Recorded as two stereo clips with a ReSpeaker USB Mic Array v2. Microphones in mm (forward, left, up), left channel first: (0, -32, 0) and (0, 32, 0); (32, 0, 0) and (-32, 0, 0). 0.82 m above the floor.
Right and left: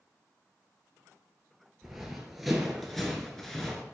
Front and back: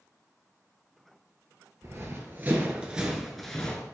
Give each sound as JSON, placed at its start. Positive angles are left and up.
{"t": 1.8, "sound": "running footsteps", "azimuth_deg": 175, "distance_m": 1.1}